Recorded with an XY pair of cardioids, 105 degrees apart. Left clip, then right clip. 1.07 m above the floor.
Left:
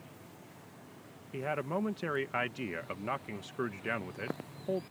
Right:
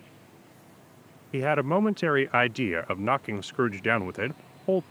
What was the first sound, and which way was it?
A man speaking, 65° right.